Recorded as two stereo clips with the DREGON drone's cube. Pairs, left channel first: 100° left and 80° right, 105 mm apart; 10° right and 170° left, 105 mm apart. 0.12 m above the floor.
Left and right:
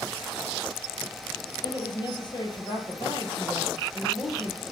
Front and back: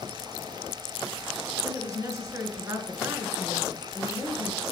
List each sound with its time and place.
1.6 s a woman speaking: 120° left, 2 m